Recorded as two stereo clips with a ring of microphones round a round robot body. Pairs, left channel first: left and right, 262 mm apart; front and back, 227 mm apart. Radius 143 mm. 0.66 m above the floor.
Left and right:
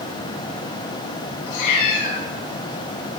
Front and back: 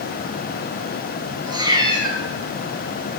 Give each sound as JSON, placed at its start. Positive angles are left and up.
{"t": 1.5, "sound": "a cat meowing", "azimuth_deg": 105, "distance_m": 2.5}